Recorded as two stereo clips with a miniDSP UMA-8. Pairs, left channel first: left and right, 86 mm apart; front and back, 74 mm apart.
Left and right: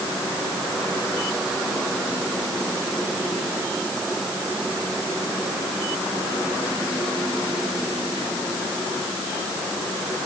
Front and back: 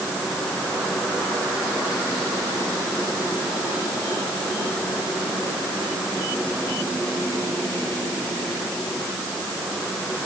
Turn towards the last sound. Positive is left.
No sound to turn to.